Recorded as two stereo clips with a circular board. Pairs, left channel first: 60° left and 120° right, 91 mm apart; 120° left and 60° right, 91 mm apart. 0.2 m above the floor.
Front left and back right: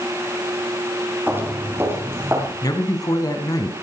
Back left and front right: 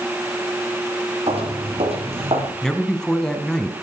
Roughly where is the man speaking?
Ahead left.